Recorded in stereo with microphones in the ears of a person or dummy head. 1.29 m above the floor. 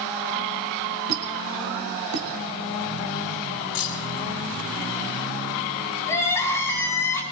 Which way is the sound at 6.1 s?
15° left (ahead or behind).